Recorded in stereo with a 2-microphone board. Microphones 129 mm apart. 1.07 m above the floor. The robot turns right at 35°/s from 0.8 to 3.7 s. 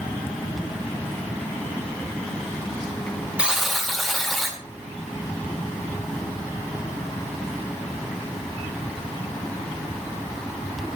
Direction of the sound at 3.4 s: 10° right (ahead or behind).